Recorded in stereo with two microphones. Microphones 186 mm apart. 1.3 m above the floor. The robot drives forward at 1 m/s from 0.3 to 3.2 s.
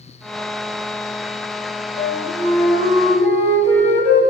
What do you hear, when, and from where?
2.0 s a flute: 50° left (ahead or behind), 1.9 m; by 4.2 s 30° left (ahead or behind), 3 m